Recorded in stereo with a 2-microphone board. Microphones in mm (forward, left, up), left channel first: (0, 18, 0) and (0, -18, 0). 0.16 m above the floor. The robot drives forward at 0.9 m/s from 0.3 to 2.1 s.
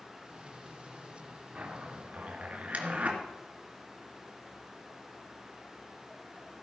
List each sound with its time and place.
1.6 s a zipper: 40° right (ahead or behind), 2.5 m; by 3.2 s 45° right (ahead or behind), 2.5 m